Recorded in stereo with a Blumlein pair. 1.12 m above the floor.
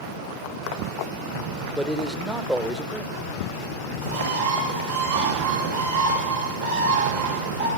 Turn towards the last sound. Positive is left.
turn(degrees=-65)